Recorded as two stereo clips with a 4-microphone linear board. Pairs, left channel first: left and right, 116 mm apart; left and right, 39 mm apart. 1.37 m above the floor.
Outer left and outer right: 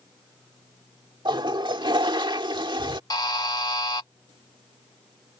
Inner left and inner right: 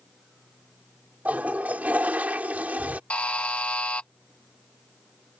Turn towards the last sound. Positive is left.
turn(degrees=35)  # may be behind; listen again after turning